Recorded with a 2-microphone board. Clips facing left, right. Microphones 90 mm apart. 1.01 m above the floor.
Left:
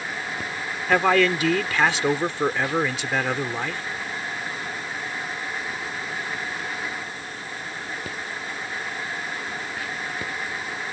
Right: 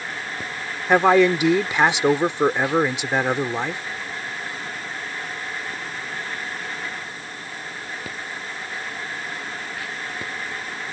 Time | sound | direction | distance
0.9 | a man speaking | 20° right (ahead or behind) | ?